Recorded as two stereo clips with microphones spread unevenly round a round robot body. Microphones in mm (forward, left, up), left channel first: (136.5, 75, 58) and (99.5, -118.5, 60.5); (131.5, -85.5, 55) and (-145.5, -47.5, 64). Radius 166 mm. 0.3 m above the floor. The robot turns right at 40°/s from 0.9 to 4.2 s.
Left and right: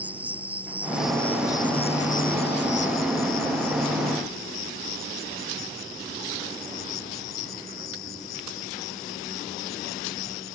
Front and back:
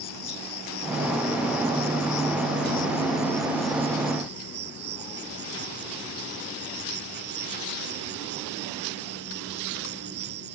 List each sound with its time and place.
0.0 s an insect: 20° right; by 10.6 s 115° left